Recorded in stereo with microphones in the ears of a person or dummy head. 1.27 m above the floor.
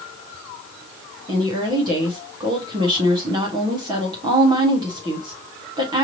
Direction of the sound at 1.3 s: 25° right (ahead or behind).